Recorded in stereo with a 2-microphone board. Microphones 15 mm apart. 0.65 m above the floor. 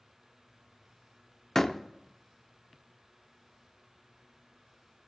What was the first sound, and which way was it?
A door slam, 25° left (ahead or behind).